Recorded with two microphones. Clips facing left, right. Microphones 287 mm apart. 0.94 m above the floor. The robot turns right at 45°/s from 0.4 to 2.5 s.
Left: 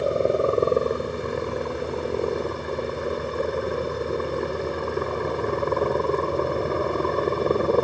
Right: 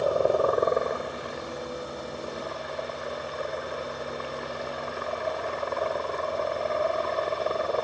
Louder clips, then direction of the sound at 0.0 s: Left 2 dB; 25° left.